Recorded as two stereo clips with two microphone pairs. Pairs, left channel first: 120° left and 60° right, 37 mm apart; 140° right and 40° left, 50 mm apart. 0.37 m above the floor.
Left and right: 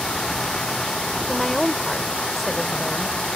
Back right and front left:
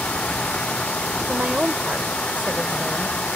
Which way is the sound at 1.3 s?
35° left.